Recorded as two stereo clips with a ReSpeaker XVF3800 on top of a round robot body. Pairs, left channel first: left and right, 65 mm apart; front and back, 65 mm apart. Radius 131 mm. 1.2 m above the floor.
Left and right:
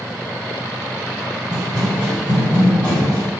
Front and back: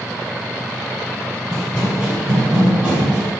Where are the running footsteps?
70° right, 1.6 m; by 3.3 s 50° left, 2.5 m.